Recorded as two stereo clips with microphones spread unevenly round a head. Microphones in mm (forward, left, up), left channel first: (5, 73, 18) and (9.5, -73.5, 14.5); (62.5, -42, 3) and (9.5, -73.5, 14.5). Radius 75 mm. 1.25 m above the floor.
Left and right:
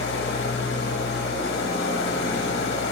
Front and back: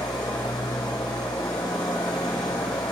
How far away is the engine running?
About 1.3 m.